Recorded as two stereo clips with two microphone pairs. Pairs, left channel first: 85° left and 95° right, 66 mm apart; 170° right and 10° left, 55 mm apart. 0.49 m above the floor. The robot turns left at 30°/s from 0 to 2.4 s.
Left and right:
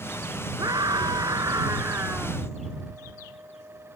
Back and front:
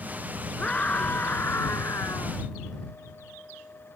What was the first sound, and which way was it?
A scream, 100° right.